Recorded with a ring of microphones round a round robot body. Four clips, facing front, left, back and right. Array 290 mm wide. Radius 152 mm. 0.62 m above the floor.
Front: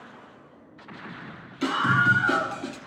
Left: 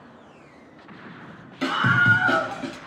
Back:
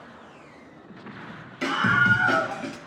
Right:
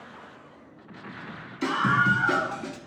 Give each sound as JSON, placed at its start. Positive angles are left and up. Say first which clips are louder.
{"t": 1.6, "sound": "a scream", "louder": "left 3 dB, even", "azimuth_deg": 110, "distance_m": 3.0}